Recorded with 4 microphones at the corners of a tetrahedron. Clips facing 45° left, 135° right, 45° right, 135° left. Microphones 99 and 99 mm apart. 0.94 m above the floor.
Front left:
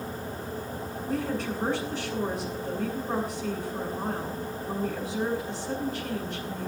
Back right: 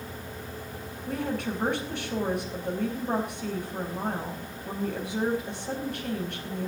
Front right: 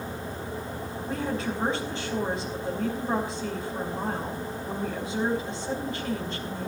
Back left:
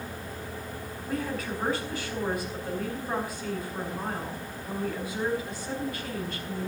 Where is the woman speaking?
110° right, 5 m.